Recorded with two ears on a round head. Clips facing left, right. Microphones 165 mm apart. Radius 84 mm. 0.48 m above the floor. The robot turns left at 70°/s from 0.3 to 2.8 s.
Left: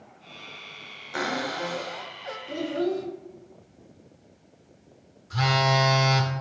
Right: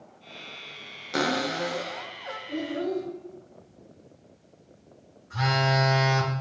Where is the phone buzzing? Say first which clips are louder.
Left 2 dB; 45° left (ahead or behind), 1.5 m.